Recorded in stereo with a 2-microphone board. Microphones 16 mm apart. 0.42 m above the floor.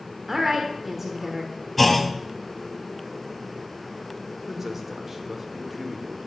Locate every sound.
0.3 s a woman speaking: 25° right (ahead or behind), 0.9 m
1.8 s a clunk: 10° left (ahead or behind), 0.7 m
4.5 s a man speaking: 25° right (ahead or behind), 0.8 m